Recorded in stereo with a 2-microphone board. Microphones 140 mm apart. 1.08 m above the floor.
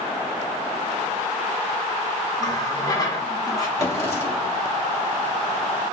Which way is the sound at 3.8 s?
25° left (ahead or behind).